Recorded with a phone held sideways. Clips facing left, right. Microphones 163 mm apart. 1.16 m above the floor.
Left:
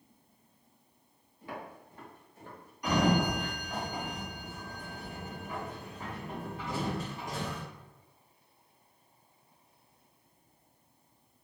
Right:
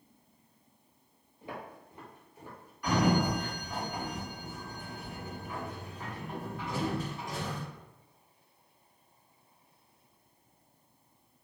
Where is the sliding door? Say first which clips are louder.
Even; 20° left (ahead or behind), 1.5 m.